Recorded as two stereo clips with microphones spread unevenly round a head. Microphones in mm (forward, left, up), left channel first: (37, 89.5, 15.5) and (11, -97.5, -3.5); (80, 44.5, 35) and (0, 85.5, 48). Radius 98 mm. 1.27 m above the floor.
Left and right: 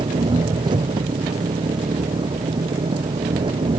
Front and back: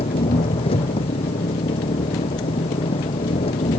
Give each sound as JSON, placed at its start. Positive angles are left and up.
{"t": 0.0, "sound": "an engine running", "azimuth_deg": -30}